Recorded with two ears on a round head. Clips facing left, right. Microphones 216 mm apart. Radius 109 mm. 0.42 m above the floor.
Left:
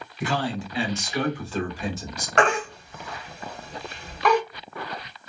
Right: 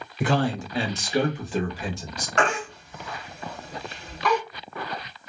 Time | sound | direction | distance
0.2 | a man speaking | 45° right (ahead or behind) | 1.2 m
2.4 | a baby crying | 55° left (ahead or behind) | 1.5 m